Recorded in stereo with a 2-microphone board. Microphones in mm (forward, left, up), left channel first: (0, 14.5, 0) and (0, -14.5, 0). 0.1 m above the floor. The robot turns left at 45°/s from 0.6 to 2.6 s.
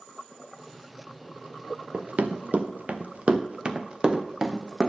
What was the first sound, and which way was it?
Running footsteps, 55° right (ahead or behind).